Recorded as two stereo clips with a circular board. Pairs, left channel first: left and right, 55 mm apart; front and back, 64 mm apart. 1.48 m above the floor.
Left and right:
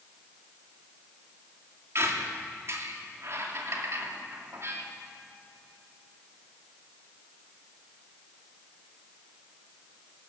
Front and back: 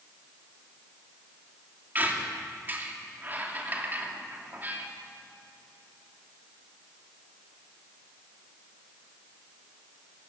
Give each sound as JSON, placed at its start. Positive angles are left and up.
{"t": 1.9, "sound": "a squeak", "azimuth_deg": -120, "distance_m": 2.5}